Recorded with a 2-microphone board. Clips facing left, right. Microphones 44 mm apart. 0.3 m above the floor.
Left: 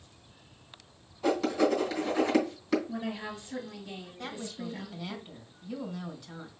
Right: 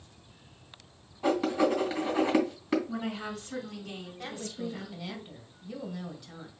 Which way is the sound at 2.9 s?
65° right (ahead or behind).